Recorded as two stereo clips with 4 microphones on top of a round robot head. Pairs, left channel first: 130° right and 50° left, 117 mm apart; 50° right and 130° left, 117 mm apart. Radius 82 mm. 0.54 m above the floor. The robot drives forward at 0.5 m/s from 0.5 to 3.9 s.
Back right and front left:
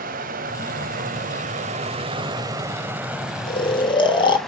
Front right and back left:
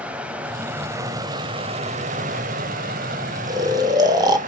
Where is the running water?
50° left, 1.0 m; by 4.5 s 145° left, 1.3 m.